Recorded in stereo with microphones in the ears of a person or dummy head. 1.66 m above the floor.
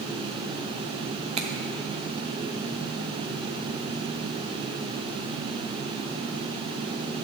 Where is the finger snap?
35° right (ahead or behind), 0.6 m.